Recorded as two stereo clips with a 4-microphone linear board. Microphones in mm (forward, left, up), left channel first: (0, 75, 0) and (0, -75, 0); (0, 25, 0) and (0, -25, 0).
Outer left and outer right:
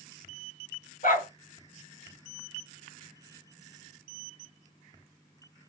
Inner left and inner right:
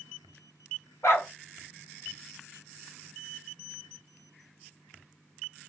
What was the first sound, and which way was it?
A dog barking, 65° left (ahead or behind).